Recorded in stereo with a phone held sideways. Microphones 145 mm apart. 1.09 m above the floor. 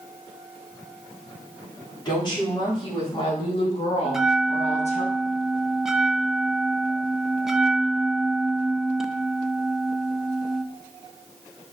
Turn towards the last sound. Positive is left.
turn(degrees=-5)  # may be behind; listen again after turning